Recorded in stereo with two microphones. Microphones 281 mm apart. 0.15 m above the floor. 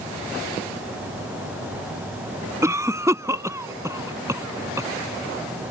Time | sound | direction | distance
2.6 | a cough | 10° right (ahead or behind) | ?